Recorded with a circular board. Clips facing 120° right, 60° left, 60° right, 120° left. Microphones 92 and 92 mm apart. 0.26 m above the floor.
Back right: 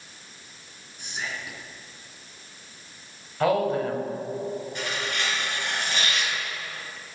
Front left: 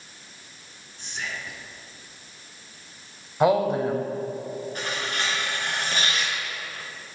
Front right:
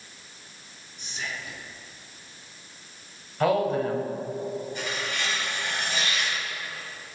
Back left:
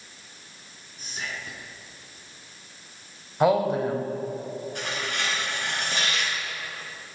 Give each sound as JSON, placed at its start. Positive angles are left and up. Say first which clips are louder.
{"t": 1.0, "sound": "whispering", "louder": "even, even", "azimuth_deg": 165, "distance_m": 3.0}
{"t": 3.4, "sound": "a woman speaking", "louder": "front left 2 dB, back left 2 dB", "azimuth_deg": 90, "distance_m": 1.2}
{"t": 4.8, "sound": "tearing paper", "louder": "even, even", "azimuth_deg": 105, "distance_m": 3.5}